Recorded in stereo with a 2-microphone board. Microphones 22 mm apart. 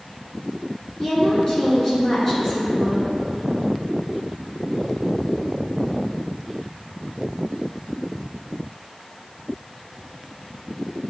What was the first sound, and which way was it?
A woman speaking, 20° left (ahead or behind).